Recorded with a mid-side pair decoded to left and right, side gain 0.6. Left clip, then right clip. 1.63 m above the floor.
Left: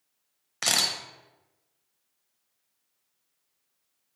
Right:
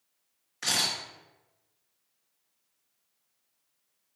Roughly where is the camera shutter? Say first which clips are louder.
Left 3 dB; ahead left.